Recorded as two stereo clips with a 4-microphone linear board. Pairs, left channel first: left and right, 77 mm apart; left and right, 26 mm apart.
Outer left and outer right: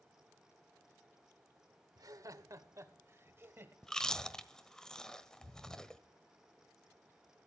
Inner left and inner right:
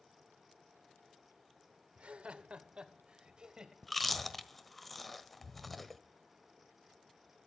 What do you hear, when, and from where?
2.0 s laughter: 55° right (ahead or behind), 1.5 m; by 3.7 s 30° right (ahead or behind), 2.5 m
3.8 s chewing: 10° left (ahead or behind), 1.4 m